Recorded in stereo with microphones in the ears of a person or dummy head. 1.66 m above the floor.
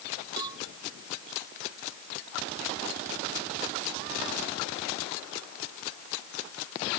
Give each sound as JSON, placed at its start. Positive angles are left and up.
{"t": 0.4, "sound": "a cowbell", "side_deg": -25}